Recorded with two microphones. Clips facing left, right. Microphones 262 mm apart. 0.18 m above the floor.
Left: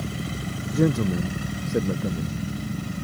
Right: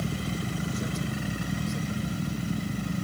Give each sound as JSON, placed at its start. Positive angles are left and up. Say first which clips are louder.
{"t": 0.7, "sound": "a man speaking", "louder": "left 11 dB", "side_deg": 70}